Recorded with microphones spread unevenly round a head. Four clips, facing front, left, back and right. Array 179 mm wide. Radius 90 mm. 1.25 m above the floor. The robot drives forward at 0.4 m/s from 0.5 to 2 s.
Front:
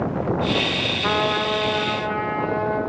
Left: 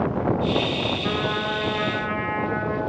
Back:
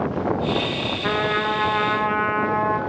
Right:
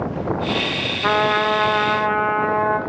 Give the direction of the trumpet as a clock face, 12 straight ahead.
3 o'clock.